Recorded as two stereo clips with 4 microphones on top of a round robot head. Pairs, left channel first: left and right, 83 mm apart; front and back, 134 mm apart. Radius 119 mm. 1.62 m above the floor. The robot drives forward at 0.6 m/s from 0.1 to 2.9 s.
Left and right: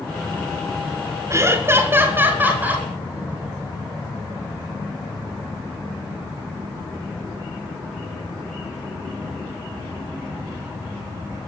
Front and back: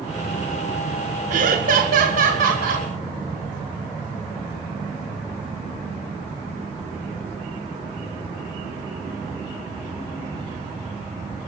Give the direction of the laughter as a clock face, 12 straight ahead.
5 o'clock.